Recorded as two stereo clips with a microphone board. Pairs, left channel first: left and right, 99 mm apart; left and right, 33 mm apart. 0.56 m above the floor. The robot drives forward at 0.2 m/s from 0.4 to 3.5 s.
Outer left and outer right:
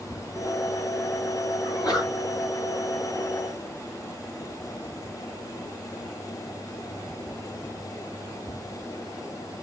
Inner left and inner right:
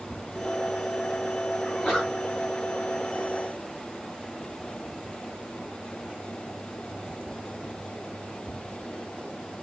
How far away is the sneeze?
About 1.8 m.